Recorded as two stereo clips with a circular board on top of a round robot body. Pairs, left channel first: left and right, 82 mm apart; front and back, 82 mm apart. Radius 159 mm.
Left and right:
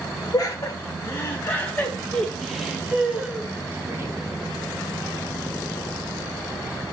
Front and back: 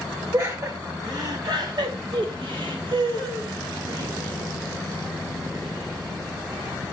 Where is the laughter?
135° left, 2.5 m; by 4.1 s 145° right, 2.5 m.